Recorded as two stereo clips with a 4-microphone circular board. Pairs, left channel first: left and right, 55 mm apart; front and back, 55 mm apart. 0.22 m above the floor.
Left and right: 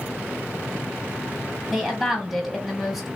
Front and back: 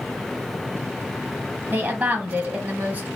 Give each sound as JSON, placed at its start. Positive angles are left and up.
{"t": 1.7, "sound": "a woman speaking", "azimuth_deg": -175, "distance_m": 1.1}